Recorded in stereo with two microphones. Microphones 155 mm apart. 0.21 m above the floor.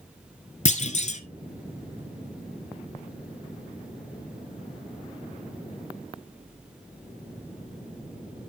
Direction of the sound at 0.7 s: 50° left (ahead or behind).